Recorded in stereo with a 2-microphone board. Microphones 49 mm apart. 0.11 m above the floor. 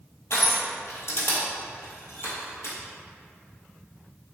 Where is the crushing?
60° left (ahead or behind), 1.2 m.